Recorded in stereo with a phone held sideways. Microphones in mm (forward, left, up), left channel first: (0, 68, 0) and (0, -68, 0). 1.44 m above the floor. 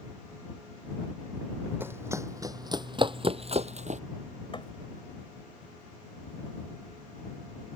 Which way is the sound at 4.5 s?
35° left (ahead or behind).